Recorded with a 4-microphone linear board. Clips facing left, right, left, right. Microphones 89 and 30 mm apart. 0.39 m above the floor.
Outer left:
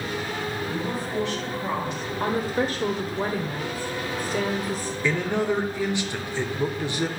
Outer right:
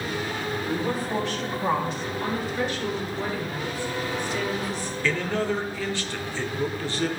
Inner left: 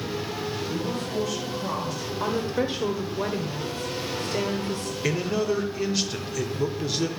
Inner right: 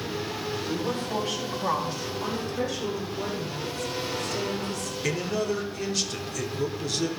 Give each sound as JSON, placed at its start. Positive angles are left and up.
{"t": 0.6, "sound": "a woman speaking", "side_deg": -45, "distance_m": 4.0}
{"t": 2.2, "sound": "a woman speaking", "side_deg": 40, "distance_m": 1.0}
{"t": 5.0, "sound": "a man speaking", "side_deg": 15, "distance_m": 0.8}